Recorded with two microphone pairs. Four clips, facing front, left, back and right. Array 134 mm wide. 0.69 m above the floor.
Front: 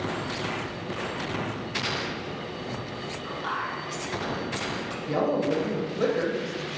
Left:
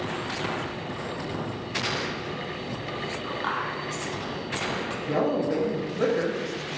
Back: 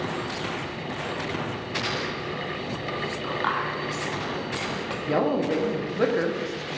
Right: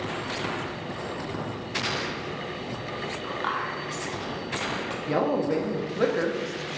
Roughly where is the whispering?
Behind.